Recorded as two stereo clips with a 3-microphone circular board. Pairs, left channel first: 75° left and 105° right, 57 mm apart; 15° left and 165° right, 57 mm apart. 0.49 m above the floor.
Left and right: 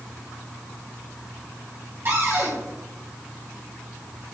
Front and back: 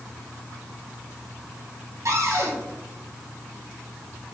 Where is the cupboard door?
150° right, 3.5 m.